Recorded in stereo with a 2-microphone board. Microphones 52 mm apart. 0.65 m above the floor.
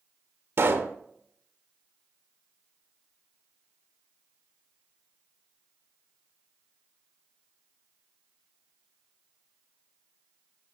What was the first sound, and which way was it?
A pop, 55° right (ahead or behind).